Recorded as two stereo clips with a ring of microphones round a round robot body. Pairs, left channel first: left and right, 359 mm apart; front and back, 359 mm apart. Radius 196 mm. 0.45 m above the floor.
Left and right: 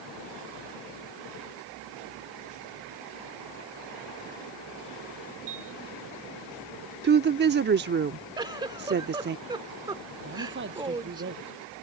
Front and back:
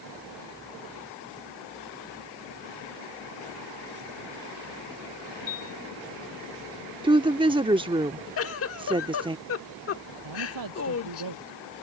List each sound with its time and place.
5.5 s a piano: 30° right
7.0 s a woman speaking: 115° right
8.4 s a giggle: 20° right
10.2 s a man speaking: 150° right